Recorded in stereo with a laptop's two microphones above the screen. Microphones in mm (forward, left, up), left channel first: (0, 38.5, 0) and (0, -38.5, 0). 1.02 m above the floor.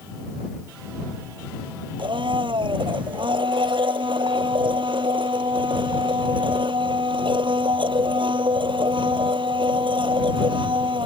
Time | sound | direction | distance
2.0 | a blender | 85° right | ?